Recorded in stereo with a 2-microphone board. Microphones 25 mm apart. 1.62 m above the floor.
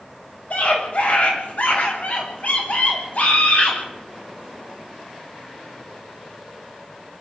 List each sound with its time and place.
0.5 s a scream: 60° left (ahead or behind), 7.5 m; by 3.8 s 65° left (ahead or behind), 10.5 m